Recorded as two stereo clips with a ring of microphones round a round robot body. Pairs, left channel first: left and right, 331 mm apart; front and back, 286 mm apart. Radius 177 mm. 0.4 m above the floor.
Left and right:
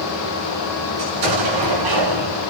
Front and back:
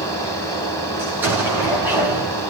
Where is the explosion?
95° right, 6.5 m.